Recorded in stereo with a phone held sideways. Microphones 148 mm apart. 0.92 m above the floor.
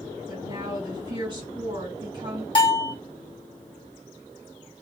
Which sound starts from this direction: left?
A bell, at 2.5 s.